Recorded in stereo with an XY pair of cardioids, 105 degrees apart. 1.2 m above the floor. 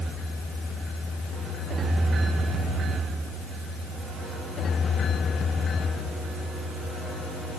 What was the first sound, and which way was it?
Only background noise.